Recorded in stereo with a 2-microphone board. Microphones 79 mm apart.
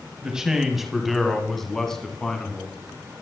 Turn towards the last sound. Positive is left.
turn(degrees=10)  # may be behind; listen again after turning